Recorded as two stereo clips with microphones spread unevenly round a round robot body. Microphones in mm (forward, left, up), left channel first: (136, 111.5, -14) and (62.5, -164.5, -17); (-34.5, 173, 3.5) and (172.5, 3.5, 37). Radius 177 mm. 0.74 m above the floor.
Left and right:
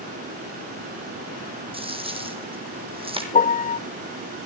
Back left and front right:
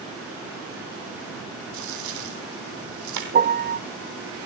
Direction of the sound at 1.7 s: 35° right.